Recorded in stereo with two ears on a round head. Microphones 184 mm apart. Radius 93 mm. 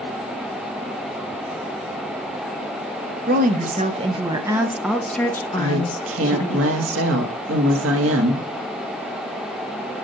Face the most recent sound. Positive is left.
turn(degrees=-70)  # may be behind; listen again after turning